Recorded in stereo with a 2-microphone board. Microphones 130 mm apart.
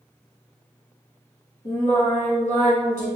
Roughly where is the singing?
Left.